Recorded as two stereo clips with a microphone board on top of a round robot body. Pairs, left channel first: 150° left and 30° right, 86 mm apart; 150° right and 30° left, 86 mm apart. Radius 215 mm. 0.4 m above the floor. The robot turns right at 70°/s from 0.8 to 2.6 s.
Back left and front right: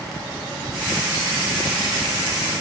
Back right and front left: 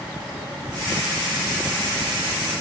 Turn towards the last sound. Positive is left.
No sound to turn to.